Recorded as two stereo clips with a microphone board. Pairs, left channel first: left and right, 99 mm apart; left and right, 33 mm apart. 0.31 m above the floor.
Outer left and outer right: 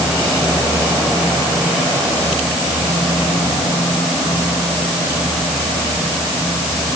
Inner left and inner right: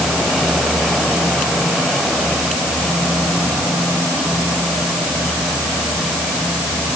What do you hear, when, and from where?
Only background noise.